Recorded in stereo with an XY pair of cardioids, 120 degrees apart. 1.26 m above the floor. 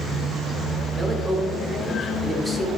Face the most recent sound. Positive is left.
turn(degrees=5)